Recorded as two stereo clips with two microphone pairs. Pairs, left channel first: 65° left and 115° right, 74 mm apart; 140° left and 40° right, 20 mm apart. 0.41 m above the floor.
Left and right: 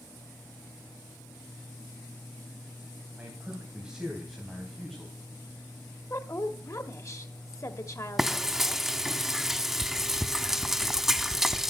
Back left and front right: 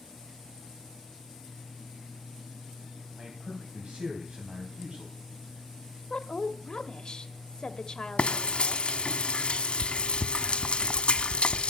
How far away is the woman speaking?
About 1.2 m.